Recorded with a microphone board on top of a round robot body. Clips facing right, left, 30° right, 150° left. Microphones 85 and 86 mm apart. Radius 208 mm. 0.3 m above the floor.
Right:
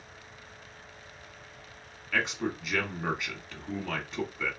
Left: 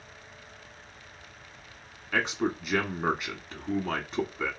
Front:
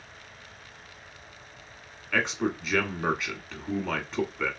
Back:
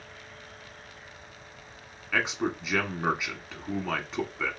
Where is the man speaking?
65° left, 1.3 m.